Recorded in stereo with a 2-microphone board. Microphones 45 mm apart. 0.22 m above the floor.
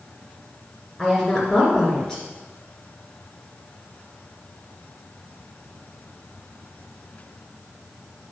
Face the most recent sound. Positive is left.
turn(degrees=10)  # may be behind; listen again after turning